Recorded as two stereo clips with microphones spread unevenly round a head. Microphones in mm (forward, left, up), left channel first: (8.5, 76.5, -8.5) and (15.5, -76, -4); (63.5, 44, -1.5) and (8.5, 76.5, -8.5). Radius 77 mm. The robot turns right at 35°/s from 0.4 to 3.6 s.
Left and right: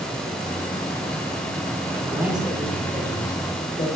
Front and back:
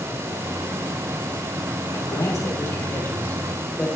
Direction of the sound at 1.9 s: 20° right.